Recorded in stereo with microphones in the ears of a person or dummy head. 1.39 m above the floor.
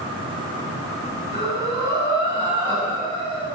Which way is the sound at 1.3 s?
20° right (ahead or behind).